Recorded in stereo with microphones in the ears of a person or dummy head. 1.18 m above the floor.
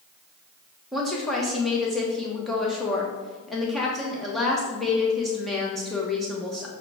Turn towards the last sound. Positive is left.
turn(degrees=5)  # may be behind; listen again after turning